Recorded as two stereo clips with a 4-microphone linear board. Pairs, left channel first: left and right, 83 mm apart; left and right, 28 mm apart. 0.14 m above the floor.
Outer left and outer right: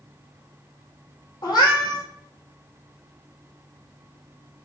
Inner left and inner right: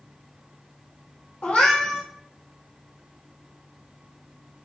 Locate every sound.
1.4 s a cat meowing: 55° left (ahead or behind), 1.3 m